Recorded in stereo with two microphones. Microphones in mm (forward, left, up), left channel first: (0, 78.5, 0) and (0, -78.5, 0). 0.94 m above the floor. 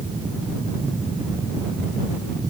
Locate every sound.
Only background noise.